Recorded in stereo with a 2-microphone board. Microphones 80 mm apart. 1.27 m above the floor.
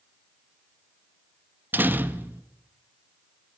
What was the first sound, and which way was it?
A door slam, 25° right (ahead or behind).